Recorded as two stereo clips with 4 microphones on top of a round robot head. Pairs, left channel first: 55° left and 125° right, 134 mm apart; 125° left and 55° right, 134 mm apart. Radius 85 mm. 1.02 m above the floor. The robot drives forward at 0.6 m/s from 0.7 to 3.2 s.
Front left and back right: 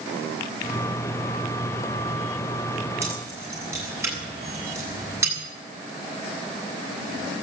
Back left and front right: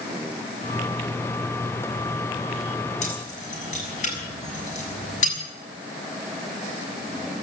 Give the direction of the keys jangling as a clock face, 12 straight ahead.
7 o'clock.